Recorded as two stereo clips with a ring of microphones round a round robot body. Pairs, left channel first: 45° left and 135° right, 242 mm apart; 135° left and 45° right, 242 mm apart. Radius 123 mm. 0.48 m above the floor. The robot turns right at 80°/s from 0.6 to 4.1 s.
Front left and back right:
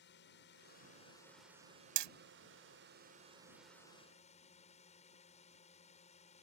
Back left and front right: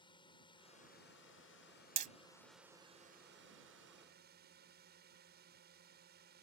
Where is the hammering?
115° right; by 2.1 s 100° right.